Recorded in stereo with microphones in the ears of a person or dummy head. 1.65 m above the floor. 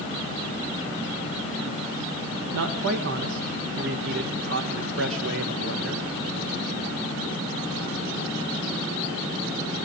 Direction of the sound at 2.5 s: 75° right (ahead or behind).